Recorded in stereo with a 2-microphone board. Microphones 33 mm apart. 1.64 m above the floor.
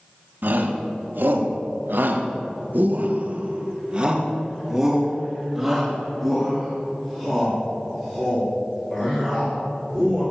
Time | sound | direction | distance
0.4 | a shout | 65° right (ahead or behind) | 1.8 m